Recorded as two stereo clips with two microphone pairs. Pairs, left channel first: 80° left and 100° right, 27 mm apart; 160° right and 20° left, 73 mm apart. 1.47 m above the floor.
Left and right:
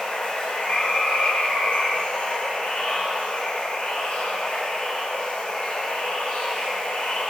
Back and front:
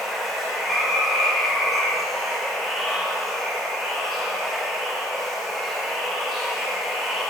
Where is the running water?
110° left, 3 m.